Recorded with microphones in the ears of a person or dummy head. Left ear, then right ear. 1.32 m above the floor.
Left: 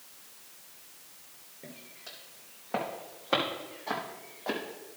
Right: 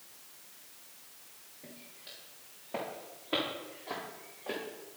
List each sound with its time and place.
1.6 s footsteps: 60° left (ahead or behind), 3.5 m; by 4.6 s 65° left (ahead or behind), 3 m